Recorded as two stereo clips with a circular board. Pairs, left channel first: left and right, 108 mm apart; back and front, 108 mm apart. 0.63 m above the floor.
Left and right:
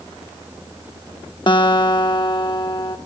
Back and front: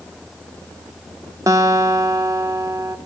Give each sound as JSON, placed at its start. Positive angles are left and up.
{"t": 1.5, "sound": "a guitar", "azimuth_deg": 55, "distance_m": 0.7}